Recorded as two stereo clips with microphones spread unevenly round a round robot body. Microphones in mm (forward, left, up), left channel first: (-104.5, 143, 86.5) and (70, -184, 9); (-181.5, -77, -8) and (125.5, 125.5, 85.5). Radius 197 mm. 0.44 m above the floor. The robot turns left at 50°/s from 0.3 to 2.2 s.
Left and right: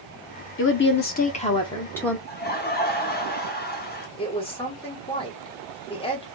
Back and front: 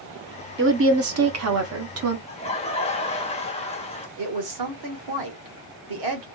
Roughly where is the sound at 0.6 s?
Left.